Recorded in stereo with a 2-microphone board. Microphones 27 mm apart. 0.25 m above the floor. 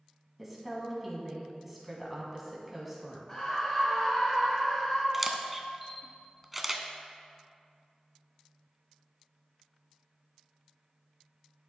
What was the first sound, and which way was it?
A woman speaking, 10° right (ahead or behind).